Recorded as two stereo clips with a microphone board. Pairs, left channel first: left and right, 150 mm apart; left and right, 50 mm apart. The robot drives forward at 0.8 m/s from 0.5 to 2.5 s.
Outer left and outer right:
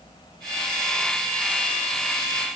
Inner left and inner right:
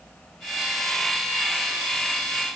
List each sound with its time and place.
Only background noise.